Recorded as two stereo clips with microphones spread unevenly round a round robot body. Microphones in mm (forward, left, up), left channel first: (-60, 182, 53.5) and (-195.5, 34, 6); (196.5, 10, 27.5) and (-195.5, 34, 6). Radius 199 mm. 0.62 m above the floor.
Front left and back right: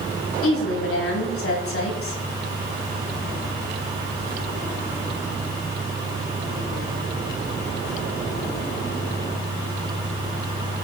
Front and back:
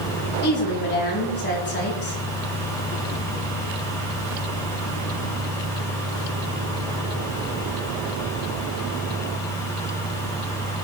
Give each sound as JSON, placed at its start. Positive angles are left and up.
{"t": 0.4, "sound": "a woman speaking", "azimuth_deg": 65, "distance_m": 4.0}